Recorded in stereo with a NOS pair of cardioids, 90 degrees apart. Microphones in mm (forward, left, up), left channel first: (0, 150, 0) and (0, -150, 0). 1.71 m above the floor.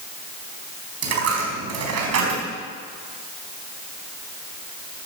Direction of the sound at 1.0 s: 60° right.